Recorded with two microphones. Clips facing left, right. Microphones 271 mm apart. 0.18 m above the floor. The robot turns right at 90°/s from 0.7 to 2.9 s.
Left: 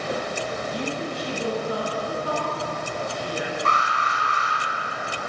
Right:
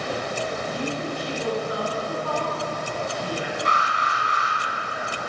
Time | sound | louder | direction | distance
0.7 | a woman speaking | even | 25° left (ahead or behind) | 1.5 m
3.6 | an alarm | even | 20° right (ahead or behind) | 2.5 m